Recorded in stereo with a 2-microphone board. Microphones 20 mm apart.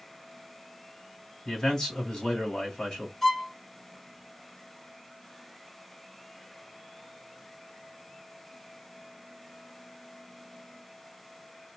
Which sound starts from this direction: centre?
A violin, at 3.2 s.